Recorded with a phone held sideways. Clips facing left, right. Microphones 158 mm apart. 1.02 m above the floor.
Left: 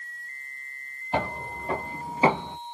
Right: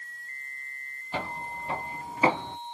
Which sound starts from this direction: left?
Footsteps, at 1.1 s.